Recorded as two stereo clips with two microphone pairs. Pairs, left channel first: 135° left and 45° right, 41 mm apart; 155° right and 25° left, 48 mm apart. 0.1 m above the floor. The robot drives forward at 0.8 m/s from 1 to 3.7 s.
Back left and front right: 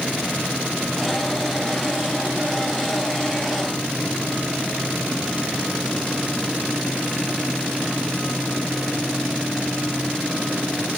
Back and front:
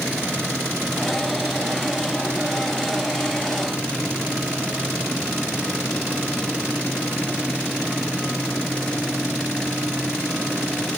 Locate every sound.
Only background noise.